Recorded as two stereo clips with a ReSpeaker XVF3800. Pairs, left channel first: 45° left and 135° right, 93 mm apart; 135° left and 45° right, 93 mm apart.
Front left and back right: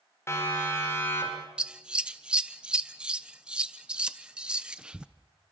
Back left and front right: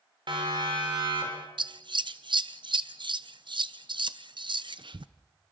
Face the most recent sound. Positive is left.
turn(degrees=-55)